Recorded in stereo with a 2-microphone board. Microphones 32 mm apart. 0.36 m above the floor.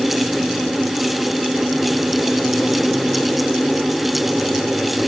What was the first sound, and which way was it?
Only background noise.